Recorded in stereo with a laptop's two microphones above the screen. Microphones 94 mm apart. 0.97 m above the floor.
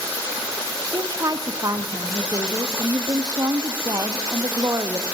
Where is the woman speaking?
40° right (ahead or behind), 1.3 m.